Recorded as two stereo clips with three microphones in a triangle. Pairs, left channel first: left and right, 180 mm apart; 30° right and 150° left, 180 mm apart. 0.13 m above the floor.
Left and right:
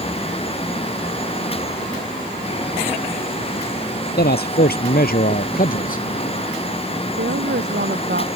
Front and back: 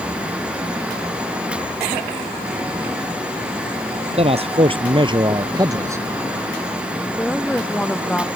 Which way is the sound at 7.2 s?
110° right.